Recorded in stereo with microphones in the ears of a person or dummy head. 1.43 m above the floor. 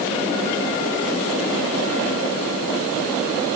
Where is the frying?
I don't hear frying.